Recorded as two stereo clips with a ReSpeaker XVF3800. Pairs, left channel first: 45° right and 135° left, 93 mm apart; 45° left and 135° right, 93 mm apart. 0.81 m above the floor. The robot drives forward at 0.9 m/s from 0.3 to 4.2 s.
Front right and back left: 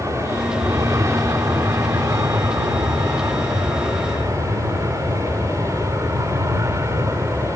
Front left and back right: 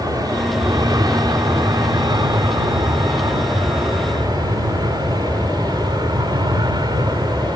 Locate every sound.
0.0 s an aircraft: 175° right; by 7.6 s 170° right